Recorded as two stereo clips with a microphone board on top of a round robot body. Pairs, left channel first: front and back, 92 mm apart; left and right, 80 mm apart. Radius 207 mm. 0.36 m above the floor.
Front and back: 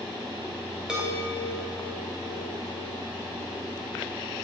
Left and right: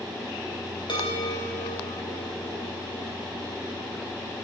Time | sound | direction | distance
0.9 | a chime | 100° left | 3 m